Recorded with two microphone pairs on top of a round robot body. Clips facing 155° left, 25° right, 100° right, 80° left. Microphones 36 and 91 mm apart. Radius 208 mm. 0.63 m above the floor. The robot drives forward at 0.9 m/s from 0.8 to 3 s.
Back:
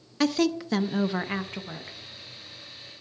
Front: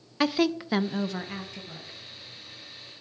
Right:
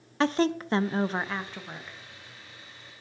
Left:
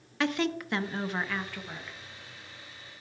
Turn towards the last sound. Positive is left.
turn(degrees=-175)